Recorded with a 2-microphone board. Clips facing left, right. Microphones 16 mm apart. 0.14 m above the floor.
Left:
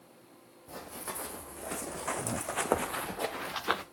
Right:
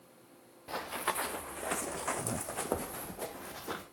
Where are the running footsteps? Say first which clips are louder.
Right 7 dB; 55° right (ahead or behind), 1.2 m; by 3.8 s 65° left (ahead or behind), 1.3 m.